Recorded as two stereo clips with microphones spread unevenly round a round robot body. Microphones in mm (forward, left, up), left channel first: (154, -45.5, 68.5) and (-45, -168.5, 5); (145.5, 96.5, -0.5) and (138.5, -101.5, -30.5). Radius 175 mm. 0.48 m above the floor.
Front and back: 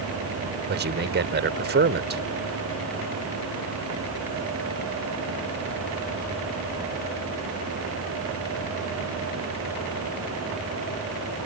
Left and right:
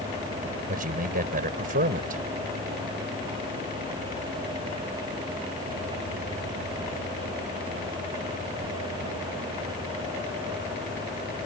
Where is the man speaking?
135° right.